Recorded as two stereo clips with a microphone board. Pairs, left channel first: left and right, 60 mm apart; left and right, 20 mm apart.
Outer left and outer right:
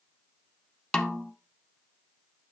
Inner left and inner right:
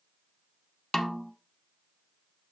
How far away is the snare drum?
About 0.6 m.